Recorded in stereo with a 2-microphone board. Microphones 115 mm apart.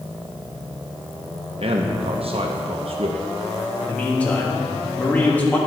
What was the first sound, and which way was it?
A man speaking, 60° right (ahead or behind).